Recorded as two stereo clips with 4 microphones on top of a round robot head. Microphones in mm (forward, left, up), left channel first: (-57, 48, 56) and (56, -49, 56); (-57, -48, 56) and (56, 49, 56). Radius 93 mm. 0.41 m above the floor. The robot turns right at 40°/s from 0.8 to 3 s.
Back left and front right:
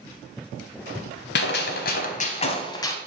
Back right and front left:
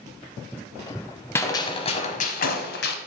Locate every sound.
1.4 s a gunshot: 145° left, 0.8 m; by 3.0 s 150° right, 0.8 m